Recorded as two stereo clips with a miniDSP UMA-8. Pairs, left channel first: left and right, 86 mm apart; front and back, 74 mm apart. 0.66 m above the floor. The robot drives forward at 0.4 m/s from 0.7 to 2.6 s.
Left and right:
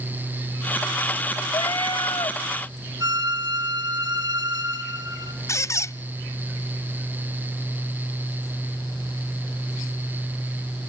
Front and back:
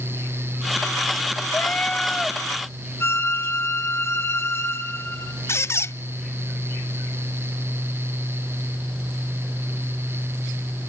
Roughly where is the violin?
Ahead right.